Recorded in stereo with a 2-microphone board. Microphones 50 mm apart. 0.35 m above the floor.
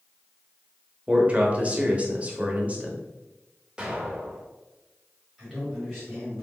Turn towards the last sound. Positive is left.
turn(degrees=0)  # may be behind; listen again after turning